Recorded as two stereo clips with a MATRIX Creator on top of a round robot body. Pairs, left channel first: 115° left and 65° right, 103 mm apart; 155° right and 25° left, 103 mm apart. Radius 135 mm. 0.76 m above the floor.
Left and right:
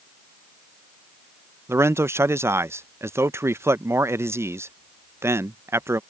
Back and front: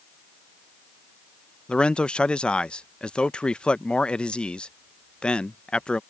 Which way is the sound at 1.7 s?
90° right.